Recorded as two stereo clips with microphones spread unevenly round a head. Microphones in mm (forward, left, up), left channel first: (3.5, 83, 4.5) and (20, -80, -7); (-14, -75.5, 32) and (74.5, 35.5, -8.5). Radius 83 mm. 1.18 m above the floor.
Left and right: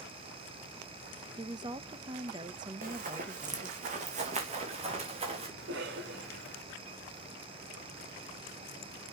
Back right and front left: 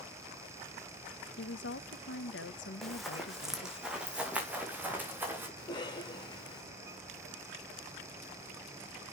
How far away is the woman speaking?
About 0.9 m.